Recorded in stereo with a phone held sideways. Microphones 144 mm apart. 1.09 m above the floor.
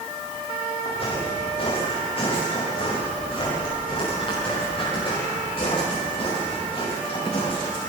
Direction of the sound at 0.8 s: 45° left (ahead or behind).